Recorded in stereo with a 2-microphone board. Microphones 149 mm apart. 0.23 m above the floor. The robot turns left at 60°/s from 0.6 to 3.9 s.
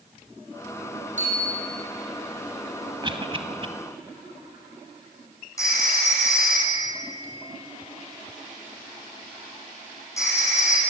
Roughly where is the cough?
Right.